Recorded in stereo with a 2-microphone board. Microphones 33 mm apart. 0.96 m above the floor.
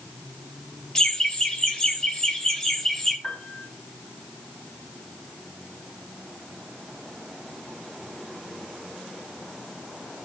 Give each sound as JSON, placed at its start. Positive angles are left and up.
{"t": 0.9, "sound": "laughter", "side_deg": 20, "distance_m": 0.8}
{"t": 3.2, "sound": "a piano", "side_deg": 10, "distance_m": 6.0}